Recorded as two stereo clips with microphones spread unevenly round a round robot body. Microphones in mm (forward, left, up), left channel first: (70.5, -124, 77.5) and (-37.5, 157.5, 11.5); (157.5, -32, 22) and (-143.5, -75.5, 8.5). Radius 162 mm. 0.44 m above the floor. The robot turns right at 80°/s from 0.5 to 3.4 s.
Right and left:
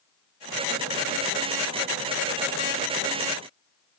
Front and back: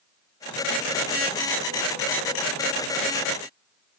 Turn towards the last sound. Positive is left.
No sound to turn to.